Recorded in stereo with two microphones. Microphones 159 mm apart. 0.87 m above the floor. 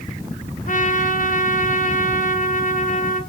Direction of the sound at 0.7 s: 55° left (ahead or behind).